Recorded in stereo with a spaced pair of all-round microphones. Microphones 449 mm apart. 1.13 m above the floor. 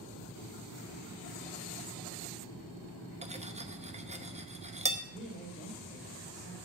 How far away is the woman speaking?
About 3 m.